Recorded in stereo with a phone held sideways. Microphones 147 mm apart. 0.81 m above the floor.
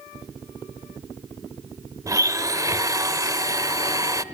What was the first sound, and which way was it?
A blender, 20° right (ahead or behind).